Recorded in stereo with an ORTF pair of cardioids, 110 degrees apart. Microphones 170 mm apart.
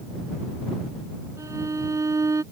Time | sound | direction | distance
1.4 | a violin | 20° right | ?